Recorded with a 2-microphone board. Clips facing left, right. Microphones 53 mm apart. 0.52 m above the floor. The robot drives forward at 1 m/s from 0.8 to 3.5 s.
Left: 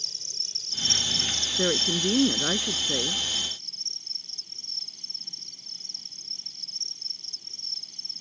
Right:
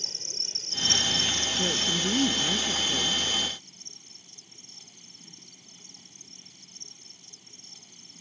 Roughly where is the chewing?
No chewing in this recording.